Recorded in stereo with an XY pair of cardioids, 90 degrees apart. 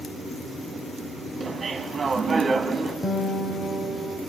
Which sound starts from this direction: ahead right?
Laughter, at 1.4 s.